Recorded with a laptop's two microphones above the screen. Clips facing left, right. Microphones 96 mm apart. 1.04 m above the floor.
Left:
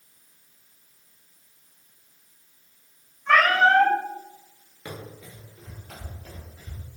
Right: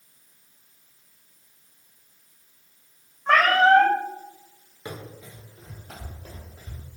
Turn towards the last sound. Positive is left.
turn(degrees=-35)  # may be behind; listen again after turning